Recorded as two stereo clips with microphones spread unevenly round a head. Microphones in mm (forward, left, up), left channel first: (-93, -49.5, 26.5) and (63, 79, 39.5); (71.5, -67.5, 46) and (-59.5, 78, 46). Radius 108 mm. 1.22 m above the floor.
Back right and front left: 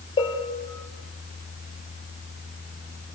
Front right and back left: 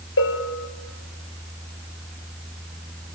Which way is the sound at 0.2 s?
70° right.